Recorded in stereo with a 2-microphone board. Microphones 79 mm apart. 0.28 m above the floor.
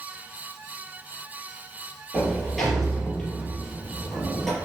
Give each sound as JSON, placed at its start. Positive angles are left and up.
{"t": 2.1, "sound": "a sliding door", "side_deg": 5, "distance_m": 3.5}